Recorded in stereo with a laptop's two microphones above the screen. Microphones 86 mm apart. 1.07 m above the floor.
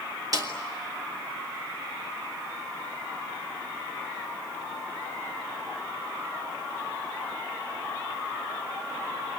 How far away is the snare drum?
About 3 m.